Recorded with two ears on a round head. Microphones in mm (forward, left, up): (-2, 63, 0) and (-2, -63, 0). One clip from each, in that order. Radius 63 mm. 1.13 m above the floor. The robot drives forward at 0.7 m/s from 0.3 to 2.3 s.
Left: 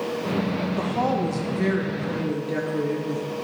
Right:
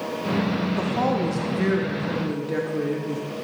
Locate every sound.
0.8 s a woman speaking: centre (ahead or behind), 0.6 m